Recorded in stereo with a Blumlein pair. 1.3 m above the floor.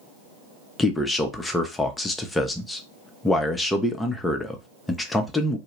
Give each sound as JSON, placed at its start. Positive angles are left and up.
{"t": 0.8, "sound": "a man speaking", "azimuth_deg": 10, "distance_m": 0.6}